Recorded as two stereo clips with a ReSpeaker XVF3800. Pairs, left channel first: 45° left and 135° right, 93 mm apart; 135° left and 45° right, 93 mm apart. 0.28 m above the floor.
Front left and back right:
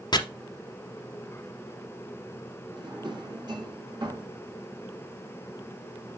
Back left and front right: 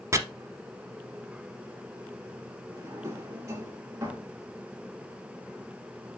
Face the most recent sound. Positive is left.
turn(degrees=-100)